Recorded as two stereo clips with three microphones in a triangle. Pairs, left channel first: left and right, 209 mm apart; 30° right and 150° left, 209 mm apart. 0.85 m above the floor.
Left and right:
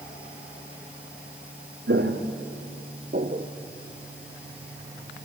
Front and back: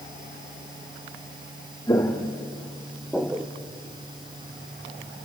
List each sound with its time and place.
1.9 s footsteps: 105° right, 2.5 m; by 3.5 s 130° right, 1.7 m